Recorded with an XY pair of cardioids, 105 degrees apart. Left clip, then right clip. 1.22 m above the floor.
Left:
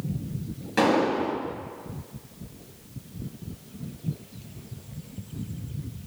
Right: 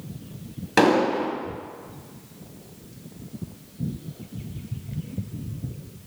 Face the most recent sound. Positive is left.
turn(degrees=-60)